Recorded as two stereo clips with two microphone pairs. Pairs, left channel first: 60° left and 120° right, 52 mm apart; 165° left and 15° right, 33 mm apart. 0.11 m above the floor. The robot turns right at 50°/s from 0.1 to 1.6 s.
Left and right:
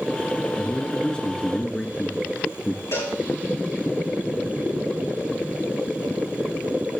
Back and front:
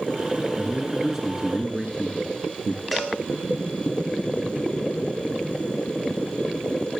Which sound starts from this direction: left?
A cowbell, at 2.9 s.